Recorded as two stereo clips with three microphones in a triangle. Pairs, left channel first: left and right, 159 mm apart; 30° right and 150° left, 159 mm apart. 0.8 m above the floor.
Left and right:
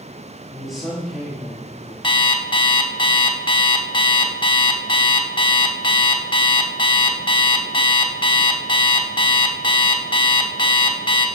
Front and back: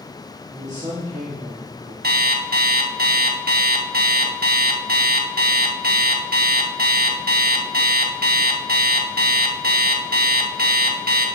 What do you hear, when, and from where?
0.5 s a man speaking: straight behind, 1.8 m
2.0 s an alarm clock: 145° left, 0.8 m